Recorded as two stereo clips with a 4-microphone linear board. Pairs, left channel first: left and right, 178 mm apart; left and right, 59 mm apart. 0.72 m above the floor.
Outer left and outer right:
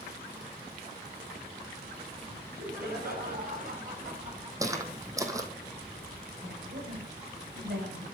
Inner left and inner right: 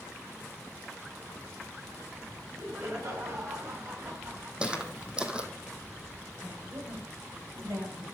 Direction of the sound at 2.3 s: 65° right (ahead or behind).